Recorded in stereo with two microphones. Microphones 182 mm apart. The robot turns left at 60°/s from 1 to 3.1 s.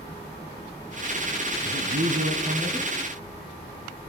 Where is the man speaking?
85° right, 3.5 m; by 2.9 s 160° right, 3.5 m.